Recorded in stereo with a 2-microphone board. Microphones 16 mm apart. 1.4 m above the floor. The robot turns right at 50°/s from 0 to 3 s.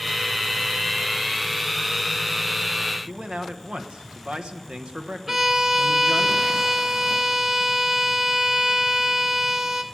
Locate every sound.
3.1 s a man speaking: 85° right, 1.2 m
5.3 s a violin: 25° right (ahead or behind), 0.7 m